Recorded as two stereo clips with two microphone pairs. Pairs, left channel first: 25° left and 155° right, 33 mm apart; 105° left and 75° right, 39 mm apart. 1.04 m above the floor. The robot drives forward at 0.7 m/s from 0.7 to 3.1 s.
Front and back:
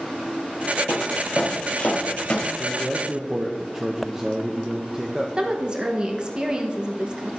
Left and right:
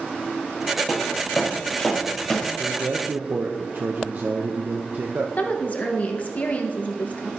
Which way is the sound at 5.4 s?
145° left.